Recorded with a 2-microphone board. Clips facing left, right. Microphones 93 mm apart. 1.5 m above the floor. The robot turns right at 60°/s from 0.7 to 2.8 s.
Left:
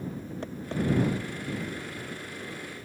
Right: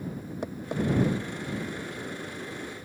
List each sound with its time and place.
0.4 s tapping: 15° right (ahead or behind); by 0.8 s 20° right (ahead or behind)